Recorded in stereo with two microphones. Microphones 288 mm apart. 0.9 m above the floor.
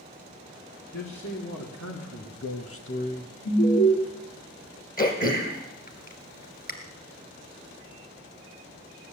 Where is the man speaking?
70° left (ahead or behind), 3 m; by 3.3 s 10° left (ahead or behind), 0.8 m.